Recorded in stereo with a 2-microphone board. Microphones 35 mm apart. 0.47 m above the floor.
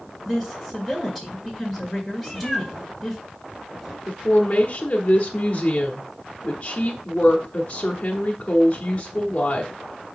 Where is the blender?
No blender in this recording.